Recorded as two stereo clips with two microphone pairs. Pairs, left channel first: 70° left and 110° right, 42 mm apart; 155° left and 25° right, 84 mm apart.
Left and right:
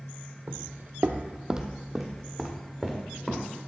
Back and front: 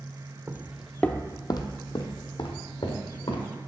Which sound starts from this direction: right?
Footsteps, at 0.5 s.